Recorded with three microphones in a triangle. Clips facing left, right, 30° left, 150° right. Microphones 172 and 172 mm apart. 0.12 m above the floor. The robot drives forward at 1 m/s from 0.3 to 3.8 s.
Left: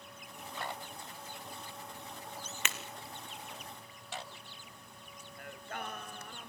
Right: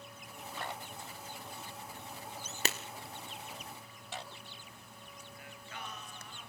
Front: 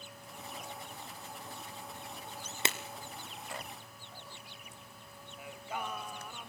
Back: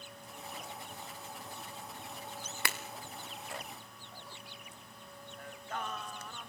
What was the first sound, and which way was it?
Breaking glass, 35° right.